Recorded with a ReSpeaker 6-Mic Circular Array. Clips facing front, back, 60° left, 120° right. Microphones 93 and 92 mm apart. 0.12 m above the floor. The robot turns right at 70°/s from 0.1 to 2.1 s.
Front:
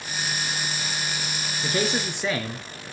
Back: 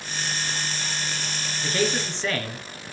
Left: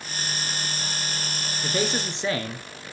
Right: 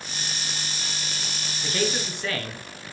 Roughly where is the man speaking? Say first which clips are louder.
Back 1 dB, even; ahead left.